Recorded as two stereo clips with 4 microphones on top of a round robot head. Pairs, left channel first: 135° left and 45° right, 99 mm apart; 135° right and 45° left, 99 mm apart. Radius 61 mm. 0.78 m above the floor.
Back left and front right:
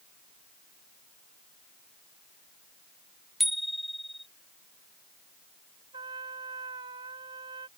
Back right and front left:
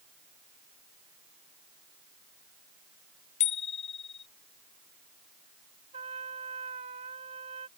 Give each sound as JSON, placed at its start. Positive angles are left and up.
{"t": 3.4, "sound": "a bicycle bell", "azimuth_deg": -135}
{"t": 5.9, "sound": "a trumpet", "azimuth_deg": 5}